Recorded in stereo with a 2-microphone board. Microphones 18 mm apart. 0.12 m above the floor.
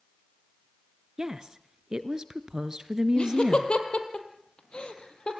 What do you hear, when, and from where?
1.2 s a woman speaking: 40° right (ahead or behind), 1.4 m
3.2 s laughter: 65° left (ahead or behind), 4 m